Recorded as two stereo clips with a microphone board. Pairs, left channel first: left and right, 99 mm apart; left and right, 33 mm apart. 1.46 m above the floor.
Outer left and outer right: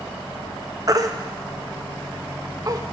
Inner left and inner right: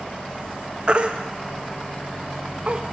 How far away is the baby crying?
About 0.8 m.